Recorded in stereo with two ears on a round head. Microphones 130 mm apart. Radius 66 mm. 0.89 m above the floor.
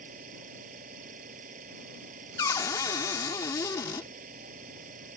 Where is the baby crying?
No baby crying in this recording.